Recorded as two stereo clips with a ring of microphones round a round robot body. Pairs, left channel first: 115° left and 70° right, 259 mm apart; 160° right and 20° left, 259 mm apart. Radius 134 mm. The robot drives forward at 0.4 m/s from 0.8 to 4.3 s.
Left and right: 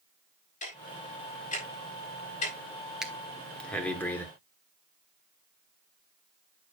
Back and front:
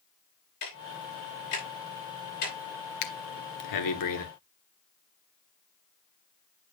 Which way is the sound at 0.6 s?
175° left.